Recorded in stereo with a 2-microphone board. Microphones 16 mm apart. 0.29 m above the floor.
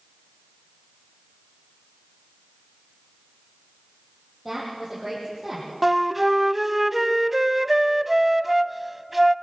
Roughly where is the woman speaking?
Centre.